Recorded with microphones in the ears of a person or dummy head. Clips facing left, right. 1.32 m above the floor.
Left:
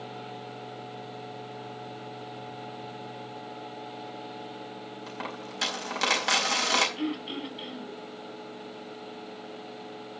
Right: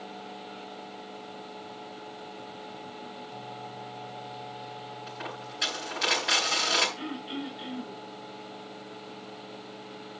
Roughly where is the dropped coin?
Left.